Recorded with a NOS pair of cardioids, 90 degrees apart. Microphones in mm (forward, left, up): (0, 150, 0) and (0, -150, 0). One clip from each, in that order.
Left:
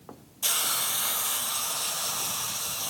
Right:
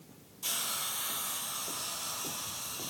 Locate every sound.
0.4 s a hiss: 55° left, 0.9 m